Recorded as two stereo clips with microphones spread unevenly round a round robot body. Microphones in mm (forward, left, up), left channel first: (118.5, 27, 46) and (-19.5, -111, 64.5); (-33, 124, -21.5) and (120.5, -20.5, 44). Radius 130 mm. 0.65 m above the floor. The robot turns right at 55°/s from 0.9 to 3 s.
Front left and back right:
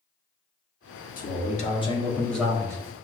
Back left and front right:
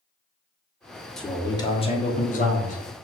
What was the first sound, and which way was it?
A man speaking, 60° left.